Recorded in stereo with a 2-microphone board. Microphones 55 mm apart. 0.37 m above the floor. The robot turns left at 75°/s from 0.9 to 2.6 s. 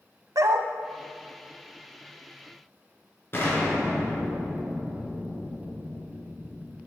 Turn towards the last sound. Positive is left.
turn(degrees=45)  # may be behind; listen again after turning